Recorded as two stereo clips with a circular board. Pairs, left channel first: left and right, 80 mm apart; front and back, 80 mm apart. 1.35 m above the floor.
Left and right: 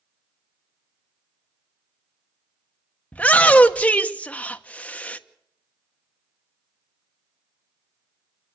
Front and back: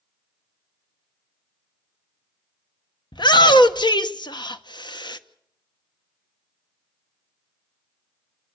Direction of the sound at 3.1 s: 20° left.